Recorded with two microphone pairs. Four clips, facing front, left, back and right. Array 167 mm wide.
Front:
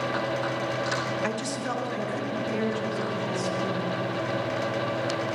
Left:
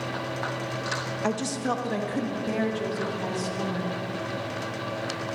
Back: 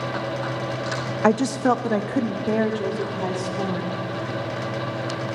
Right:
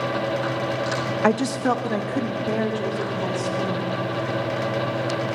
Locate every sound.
1.2 s a woman speaking: 140° right, 0.6 m; by 4.0 s 175° right, 2.5 m